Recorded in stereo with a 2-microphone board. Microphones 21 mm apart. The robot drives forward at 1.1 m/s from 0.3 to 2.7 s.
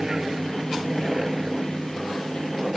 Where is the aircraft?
20° right (ahead or behind).